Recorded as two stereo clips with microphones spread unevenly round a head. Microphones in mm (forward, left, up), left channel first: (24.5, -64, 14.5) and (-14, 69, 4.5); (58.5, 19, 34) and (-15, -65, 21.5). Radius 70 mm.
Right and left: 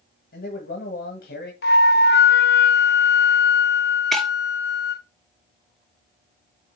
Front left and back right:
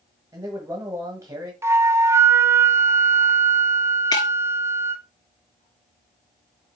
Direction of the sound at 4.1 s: 10° left.